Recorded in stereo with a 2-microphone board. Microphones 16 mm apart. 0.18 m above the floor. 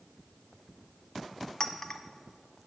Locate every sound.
1.6 s a clink: 25° left (ahead or behind), 0.6 m